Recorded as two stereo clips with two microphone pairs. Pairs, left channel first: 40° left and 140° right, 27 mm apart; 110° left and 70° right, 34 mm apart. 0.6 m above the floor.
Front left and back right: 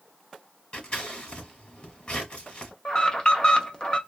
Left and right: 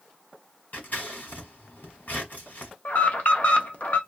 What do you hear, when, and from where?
0.7 s scissors: 90° left, 1.5 m
2.9 s an alarm: 90° left, 0.6 m